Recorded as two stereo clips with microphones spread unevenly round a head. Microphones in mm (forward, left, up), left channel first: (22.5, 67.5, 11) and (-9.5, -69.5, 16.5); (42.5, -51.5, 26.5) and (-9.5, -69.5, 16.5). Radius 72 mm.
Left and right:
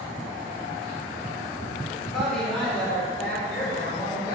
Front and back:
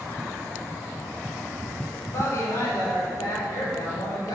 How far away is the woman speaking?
About 4 m.